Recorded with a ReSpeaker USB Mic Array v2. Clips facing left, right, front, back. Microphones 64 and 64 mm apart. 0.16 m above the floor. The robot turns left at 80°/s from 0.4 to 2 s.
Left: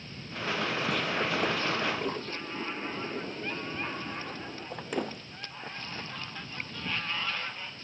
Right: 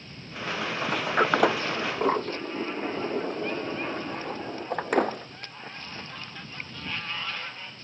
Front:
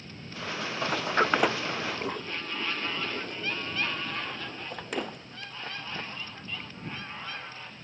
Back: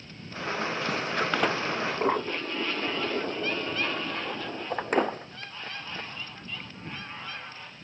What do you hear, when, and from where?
0.8 s a sliding door: 35° right; by 5.5 s 130° right